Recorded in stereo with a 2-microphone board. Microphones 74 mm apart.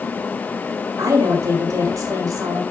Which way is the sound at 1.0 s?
50° right (ahead or behind).